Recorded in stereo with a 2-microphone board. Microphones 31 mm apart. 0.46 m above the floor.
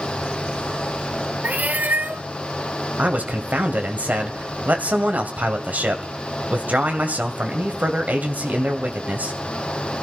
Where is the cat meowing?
60° right (ahead or behind), 0.8 m.